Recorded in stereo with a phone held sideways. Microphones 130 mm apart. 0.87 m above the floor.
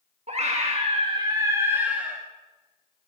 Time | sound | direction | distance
0.3 | a scream | 55° right (ahead or behind) | 1.6 m